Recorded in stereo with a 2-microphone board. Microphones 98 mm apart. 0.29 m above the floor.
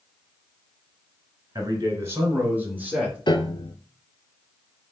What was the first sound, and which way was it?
A man speaking, 35° right (ahead or behind).